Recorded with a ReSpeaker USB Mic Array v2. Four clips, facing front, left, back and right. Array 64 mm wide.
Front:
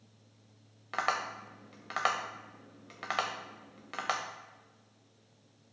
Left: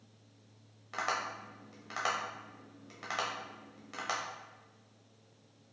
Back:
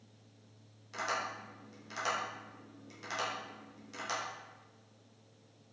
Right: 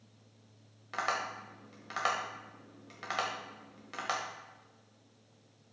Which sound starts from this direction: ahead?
Tapping, at 0.9 s.